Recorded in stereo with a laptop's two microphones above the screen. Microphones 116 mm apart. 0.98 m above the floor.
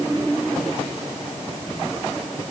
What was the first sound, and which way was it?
Only background noise.